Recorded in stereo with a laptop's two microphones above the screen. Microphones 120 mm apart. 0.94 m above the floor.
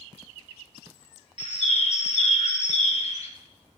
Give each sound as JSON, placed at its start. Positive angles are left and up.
{"t": 1.4, "sound": "a bird", "side_deg": 65, "distance_m": 0.8}